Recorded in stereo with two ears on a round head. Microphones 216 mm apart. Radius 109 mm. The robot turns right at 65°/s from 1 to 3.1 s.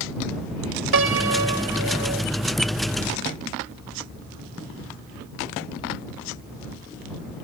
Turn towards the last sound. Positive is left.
turn(degrees=15)